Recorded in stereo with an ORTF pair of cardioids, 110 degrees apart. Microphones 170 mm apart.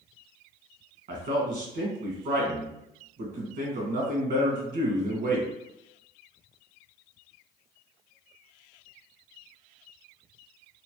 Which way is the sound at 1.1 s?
60° right.